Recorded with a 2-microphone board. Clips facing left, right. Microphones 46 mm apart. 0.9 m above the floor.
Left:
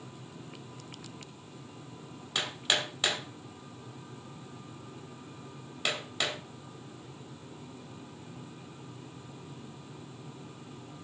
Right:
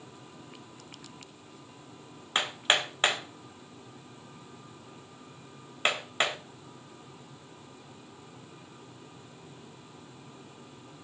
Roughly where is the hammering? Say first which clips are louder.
Right 4 dB; right.